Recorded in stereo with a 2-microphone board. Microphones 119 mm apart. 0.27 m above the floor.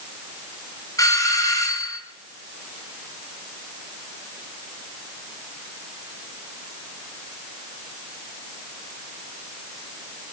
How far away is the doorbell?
About 3 m.